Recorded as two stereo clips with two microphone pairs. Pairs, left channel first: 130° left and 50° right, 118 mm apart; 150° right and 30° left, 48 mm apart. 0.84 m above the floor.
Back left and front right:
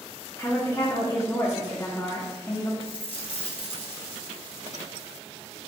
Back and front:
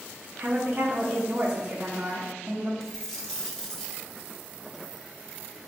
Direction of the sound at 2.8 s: 135° left.